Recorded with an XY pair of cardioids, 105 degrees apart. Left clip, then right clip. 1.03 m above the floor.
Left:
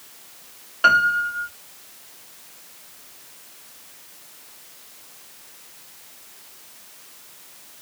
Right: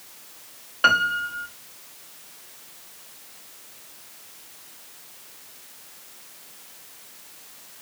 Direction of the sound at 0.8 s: 15° right.